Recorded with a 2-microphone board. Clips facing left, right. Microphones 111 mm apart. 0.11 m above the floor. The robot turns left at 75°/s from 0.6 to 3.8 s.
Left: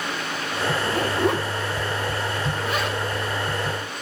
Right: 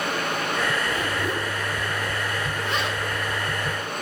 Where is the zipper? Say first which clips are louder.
Left 4 dB; 30° left (ahead or behind), 8 m; by 3.0 s 15° right (ahead or behind), 8 m.